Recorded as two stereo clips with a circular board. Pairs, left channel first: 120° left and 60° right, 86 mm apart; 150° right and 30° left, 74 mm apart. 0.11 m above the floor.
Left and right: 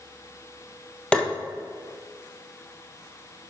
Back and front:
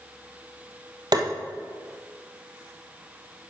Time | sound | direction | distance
1.1 | tapping | 40° left | 1.4 m